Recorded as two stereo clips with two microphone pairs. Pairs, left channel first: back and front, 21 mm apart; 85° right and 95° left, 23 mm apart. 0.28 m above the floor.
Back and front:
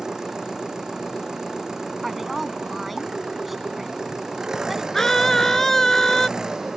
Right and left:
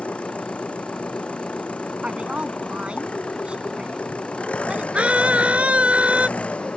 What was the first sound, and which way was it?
An engine running, 60° right.